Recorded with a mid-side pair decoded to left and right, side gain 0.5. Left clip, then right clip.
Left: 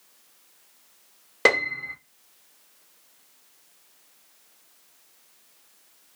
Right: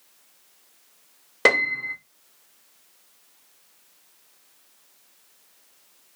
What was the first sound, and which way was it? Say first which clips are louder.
A piano: right 2 dB; 5° right.